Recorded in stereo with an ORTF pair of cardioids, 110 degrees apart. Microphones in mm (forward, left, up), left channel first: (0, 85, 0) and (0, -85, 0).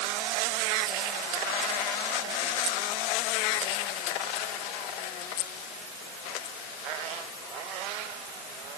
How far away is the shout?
I don't hear a shout.